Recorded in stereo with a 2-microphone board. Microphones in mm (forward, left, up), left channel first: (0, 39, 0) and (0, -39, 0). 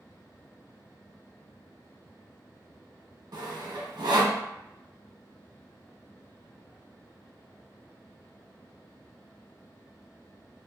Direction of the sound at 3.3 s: 65° right (ahead or behind).